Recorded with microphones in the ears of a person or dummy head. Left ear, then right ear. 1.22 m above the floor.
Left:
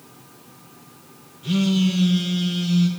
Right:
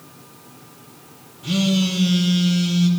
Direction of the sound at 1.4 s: 10° left (ahead or behind).